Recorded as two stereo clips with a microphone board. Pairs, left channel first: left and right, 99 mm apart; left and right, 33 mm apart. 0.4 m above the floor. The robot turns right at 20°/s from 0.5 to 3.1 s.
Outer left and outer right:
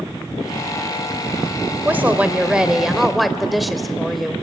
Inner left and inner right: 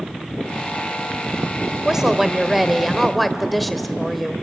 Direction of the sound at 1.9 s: 20° right (ahead or behind).